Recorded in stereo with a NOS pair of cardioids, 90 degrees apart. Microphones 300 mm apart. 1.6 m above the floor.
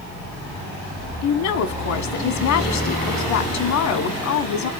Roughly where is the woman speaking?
Ahead left.